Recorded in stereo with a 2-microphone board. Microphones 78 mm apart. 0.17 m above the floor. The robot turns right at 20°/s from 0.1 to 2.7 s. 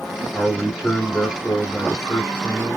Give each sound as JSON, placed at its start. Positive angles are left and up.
{"t": 0.3, "sound": "a man speaking", "azimuth_deg": 0, "distance_m": 2.0}